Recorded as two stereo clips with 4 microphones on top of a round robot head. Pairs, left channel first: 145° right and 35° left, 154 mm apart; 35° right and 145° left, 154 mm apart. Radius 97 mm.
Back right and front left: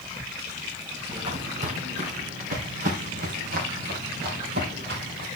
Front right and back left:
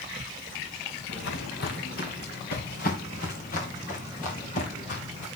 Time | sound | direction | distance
1.1 | footsteps | 20° right | 3 m